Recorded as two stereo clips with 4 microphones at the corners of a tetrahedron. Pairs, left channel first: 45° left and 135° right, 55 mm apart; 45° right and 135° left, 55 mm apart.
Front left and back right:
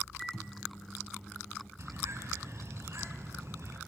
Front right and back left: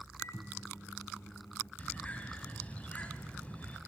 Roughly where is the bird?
Right.